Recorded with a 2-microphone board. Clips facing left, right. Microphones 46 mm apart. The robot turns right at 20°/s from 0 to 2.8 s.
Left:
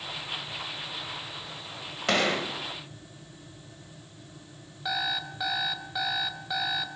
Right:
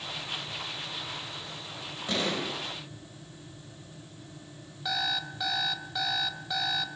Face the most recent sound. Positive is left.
turn(degrees=10)  # may be behind; listen again after turning